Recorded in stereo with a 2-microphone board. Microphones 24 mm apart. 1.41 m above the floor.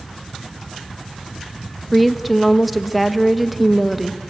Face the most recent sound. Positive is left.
turn(degrees=0)  # may be behind; listen again after turning